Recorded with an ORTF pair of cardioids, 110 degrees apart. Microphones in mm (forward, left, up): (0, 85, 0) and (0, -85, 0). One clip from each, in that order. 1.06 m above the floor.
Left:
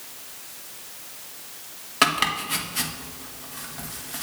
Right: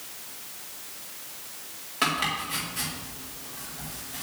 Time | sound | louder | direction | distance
2.0 | chopping | left 5 dB | 45° left | 1.5 m